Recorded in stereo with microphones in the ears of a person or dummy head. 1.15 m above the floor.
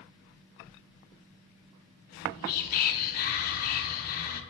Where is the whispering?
45° left (ahead or behind), 0.5 m.